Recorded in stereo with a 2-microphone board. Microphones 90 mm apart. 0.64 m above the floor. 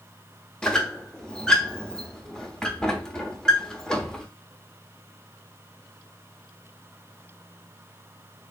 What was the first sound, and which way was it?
A squeak, 5° left (ahead or behind).